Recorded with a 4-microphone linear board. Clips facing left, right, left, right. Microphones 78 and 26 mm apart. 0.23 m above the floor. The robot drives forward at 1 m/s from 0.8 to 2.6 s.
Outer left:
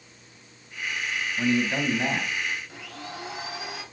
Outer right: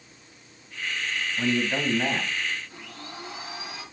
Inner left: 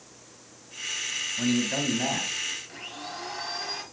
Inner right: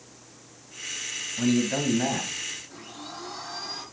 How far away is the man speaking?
About 1.3 m.